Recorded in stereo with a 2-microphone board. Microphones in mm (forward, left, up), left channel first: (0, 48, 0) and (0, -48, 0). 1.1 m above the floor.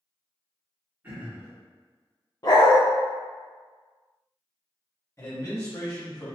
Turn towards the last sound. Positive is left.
turn(degrees=30)  # may be behind; listen again after turning